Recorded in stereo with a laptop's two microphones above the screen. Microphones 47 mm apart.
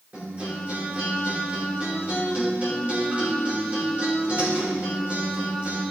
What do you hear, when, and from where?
0.1 s a guitar: 30° right (ahead or behind), 3 m